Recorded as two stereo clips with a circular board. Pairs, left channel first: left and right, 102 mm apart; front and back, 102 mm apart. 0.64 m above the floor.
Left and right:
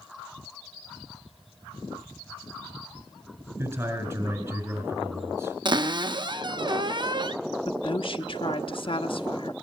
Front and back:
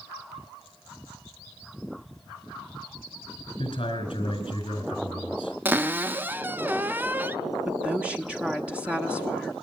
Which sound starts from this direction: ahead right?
A man speaking, at 3.6 s.